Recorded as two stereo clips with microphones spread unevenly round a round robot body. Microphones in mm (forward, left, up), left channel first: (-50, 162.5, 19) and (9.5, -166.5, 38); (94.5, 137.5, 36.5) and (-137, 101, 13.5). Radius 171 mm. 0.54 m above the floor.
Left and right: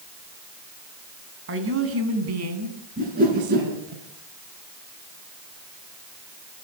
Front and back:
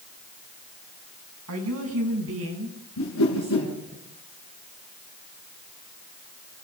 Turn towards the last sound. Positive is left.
turn(degrees=-15)